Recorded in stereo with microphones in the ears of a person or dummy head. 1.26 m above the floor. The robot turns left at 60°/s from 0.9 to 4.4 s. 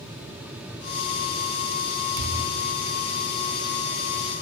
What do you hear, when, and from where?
2.2 s a thud: 5° right (ahead or behind), 0.9 m; by 2.7 s 10° left (ahead or behind), 0.9 m